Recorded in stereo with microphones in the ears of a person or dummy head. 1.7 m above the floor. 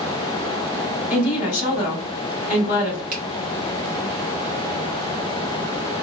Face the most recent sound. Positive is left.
turn(degrees=-50)  # may be behind; listen again after turning